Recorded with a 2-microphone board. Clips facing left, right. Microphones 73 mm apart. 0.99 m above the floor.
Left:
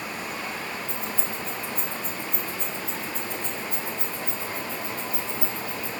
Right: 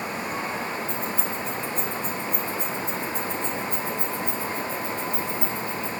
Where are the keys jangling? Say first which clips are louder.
Right 3 dB; 80° right, 7 m; by 5.9 s 65° right (ahead or behind), 5 m.